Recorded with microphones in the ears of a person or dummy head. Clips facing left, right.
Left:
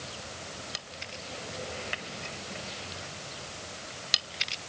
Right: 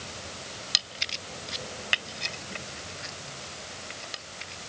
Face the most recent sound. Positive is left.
No sound to turn to.